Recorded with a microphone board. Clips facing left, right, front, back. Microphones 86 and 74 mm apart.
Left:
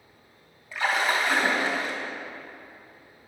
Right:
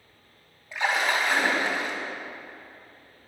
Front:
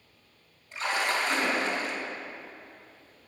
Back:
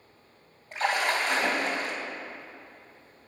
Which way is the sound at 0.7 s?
155° right.